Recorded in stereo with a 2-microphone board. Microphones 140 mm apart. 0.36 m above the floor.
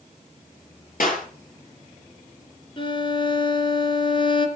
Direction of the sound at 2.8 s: 35° left (ahead or behind).